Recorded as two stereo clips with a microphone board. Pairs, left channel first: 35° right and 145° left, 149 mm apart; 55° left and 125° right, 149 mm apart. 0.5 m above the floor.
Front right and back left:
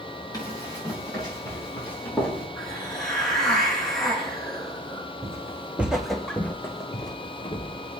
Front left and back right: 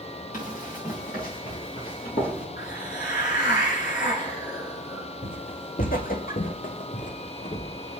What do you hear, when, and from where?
0.3 s running footsteps: 30° left, 4 m; by 2.5 s 45° left, 5 m
2.6 s a hiss: 50° left, 6 m
5.2 s footsteps: 80° left, 1.5 m; by 8.0 s 10° left, 1.7 m